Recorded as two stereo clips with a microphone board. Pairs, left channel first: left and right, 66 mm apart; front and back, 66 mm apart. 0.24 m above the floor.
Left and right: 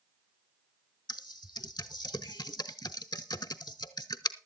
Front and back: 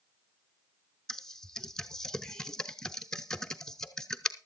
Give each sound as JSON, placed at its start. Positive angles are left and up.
{"t": 1.1, "sound": "typing on a keyboard", "azimuth_deg": 80, "distance_m": 0.6}